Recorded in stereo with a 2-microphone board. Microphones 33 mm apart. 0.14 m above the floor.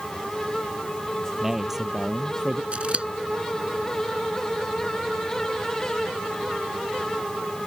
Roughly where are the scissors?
Right.